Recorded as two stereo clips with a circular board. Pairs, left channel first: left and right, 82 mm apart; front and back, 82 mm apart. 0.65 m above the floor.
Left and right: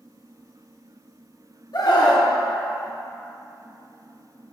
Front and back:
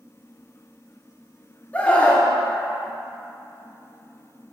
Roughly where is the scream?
Left.